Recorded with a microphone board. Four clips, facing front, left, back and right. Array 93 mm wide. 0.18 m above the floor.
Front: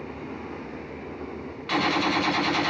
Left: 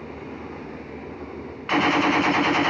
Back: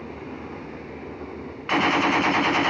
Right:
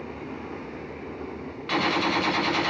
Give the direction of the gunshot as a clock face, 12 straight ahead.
7 o'clock.